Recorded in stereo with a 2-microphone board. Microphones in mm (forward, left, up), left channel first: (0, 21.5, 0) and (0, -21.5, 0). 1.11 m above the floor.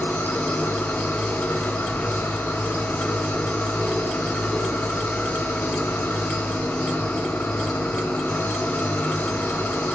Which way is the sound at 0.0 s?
60° left (ahead or behind).